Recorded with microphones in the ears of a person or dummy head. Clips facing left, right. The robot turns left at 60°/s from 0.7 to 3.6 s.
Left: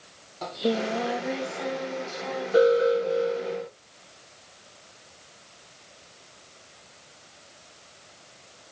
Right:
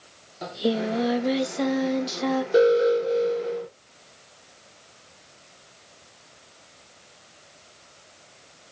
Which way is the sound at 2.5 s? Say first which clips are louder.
Right 1 dB; 25° right.